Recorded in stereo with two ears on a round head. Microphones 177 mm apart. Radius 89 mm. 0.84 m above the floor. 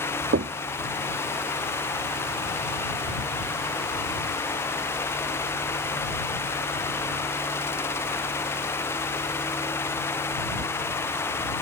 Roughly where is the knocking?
Right.